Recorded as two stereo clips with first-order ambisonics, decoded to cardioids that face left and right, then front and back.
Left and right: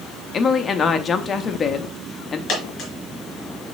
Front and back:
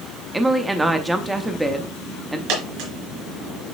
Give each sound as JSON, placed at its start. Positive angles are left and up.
{"t": 0.3, "sound": "a woman speaking", "azimuth_deg": 110, "distance_m": 0.5}
{"t": 2.5, "sound": "a dropped coin", "azimuth_deg": 155, "distance_m": 3.5}